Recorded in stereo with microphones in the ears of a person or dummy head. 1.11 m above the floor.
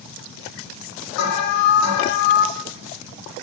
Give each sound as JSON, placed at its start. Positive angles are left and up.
{"t": 1.2, "sound": "an alarm", "side_deg": 75, "distance_m": 2.5}